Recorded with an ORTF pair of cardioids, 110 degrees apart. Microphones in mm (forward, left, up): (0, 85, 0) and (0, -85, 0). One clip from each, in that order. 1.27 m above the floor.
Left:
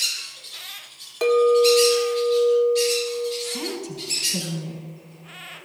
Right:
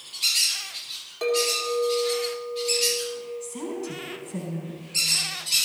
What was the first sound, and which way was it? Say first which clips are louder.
A clink: left 8 dB; 35° left.